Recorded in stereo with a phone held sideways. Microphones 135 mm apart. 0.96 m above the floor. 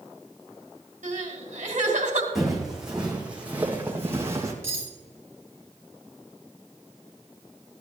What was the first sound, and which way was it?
Crying, 65° right (ahead or behind).